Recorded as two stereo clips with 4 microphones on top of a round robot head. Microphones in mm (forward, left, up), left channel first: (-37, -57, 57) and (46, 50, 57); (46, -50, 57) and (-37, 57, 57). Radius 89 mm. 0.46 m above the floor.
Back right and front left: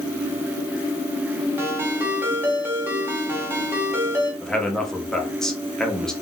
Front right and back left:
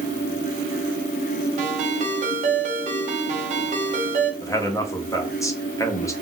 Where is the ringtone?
125° left, 1.1 m.